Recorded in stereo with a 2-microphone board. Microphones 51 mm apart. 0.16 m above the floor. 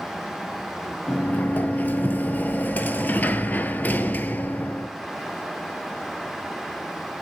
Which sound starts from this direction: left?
A sliding door, at 1.1 s.